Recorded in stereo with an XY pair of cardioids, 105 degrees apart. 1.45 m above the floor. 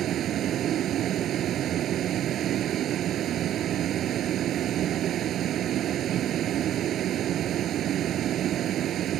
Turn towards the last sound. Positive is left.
turn(degrees=-65)